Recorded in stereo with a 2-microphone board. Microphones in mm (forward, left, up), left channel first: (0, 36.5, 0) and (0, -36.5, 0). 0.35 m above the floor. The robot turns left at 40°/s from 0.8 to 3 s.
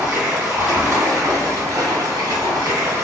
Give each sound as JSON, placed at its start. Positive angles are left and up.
{"t": 0.0, "sound": "running water", "azimuth_deg": -35, "distance_m": 2.0}